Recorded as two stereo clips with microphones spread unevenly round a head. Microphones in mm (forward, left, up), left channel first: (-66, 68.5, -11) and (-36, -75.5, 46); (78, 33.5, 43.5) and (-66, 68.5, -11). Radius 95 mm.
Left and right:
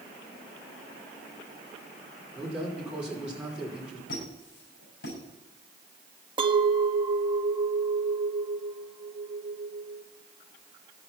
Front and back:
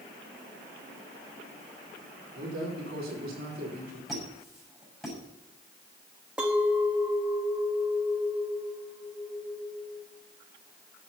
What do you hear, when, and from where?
2.4 s a man speaking: 165° right, 5 m
4.1 s a squeak: 75° left, 7 m
6.4 s a clink: 90° right, 1.0 m